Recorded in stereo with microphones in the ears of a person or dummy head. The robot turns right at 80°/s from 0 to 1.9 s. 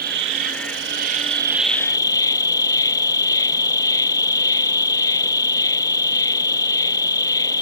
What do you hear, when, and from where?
0.0 s an insect: 130° right; by 7.6 s 20° left